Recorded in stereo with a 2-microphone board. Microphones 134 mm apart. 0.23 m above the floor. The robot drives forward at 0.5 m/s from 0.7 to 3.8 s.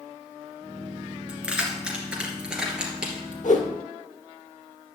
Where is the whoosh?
70° left (ahead or behind), 1.8 m; by 3.7 s 65° left (ahead or behind), 1.9 m.